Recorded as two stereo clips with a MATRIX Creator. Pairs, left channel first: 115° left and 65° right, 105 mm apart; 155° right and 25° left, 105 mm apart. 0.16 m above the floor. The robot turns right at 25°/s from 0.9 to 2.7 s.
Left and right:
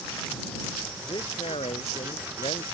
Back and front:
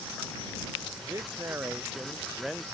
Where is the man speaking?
75° left; by 2.6 s 115° left.